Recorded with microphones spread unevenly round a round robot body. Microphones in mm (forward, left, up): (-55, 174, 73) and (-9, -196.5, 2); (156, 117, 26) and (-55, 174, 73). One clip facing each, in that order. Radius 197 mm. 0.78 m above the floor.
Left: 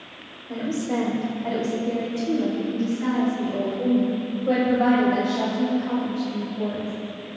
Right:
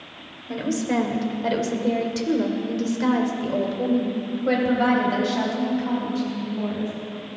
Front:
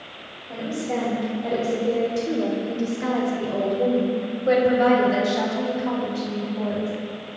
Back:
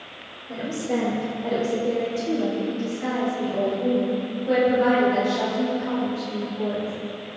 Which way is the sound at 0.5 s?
120° right.